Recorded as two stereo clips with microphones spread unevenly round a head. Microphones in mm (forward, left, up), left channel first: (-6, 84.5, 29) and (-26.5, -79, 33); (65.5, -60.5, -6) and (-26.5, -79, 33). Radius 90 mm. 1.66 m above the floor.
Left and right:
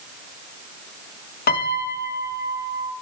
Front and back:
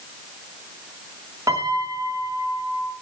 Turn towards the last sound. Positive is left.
turn(degrees=120)